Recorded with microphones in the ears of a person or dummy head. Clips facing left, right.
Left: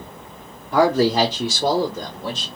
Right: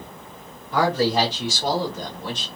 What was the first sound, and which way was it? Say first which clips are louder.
A man speaking: left 4 dB; 50° left (ahead or behind).